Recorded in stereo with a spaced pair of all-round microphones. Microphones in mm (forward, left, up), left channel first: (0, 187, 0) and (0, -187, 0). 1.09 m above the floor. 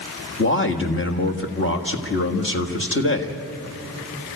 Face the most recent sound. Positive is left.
turn(degrees=30)  # may be behind; listen again after turning